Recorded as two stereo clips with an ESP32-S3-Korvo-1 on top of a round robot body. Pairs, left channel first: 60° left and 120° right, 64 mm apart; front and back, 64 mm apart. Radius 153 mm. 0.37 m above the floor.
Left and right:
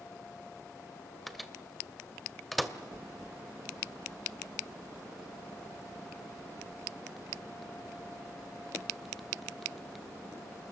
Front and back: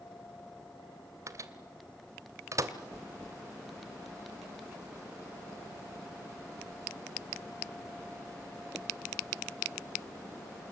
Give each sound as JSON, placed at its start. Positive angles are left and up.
{"t": 1.3, "sound": "a microwave", "azimuth_deg": 150, "distance_m": 2.0}